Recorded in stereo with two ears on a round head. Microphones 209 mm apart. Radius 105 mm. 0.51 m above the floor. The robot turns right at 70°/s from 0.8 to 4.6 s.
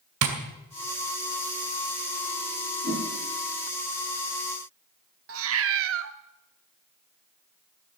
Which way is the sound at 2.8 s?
40° right (ahead or behind).